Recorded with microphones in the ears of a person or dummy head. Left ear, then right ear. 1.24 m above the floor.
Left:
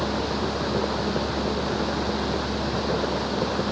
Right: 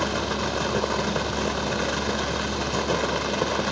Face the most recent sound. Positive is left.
turn(degrees=-70)  # may be behind; listen again after turning